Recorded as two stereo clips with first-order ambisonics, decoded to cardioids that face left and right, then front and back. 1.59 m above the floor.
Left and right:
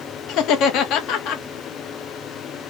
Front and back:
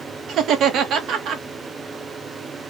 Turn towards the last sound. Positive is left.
turn(degrees=130)